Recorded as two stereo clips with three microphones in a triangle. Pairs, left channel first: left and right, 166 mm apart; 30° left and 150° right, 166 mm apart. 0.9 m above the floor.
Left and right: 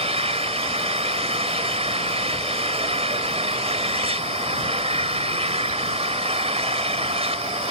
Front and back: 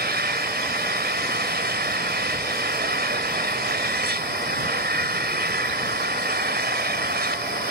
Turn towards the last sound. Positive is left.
turn(degrees=-140)